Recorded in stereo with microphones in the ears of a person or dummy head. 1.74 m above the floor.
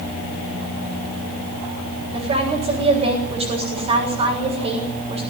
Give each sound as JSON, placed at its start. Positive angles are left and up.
{"t": 2.1, "sound": "a woman speaking", "side_deg": -35, "distance_m": 7.0}